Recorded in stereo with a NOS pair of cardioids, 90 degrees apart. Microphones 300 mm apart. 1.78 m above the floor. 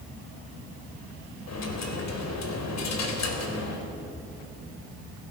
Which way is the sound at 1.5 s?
60° left.